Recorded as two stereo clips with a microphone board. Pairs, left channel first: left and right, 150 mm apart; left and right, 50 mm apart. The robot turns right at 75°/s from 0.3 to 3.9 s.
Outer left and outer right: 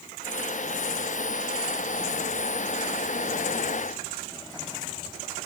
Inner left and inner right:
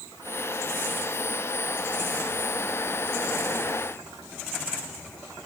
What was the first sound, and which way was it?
Only background noise.